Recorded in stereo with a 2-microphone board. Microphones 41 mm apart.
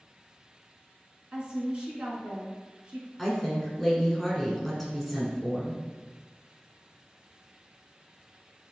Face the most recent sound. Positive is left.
turn(degrees=0)  # may be behind; listen again after turning